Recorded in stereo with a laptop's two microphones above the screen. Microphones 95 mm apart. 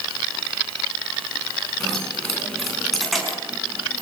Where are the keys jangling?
5° left (ahead or behind), 8 m; by 4.0 s centre (ahead or behind), 7 m.